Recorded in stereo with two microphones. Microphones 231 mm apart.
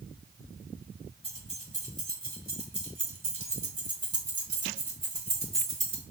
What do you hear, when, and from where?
1.2 s keys jangling: 25° right (ahead or behind), 1.9 m; by 6.0 s 55° right (ahead or behind), 1.9 m